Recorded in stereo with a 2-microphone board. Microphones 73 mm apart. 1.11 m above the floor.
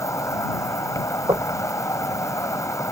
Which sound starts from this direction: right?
Knocking, at 1.3 s.